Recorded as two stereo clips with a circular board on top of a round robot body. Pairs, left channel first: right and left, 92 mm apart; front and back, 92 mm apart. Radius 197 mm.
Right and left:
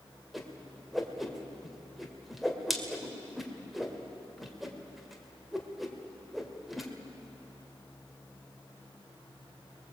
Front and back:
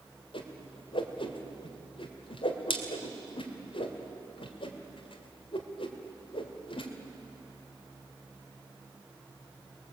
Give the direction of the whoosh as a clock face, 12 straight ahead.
12 o'clock.